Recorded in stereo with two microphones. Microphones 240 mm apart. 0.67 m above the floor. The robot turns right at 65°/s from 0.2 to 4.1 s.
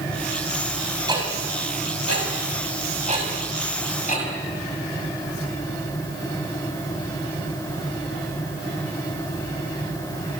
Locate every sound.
1.1 s ticking: 15° right (ahead or behind), 6 m; by 4.3 s 30° left (ahead or behind), 6 m